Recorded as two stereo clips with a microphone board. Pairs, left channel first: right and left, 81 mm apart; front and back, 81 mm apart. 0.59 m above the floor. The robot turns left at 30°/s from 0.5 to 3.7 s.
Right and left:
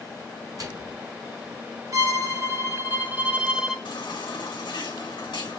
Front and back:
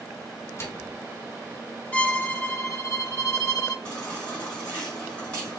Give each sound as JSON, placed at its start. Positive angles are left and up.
{"t": 0.6, "sound": "a microwave", "azimuth_deg": 55, "distance_m": 1.2}
{"t": 1.9, "sound": "a violin", "azimuth_deg": 65, "distance_m": 1.0}
{"t": 3.9, "sound": "a baby crying", "azimuth_deg": -80, "distance_m": 3.0}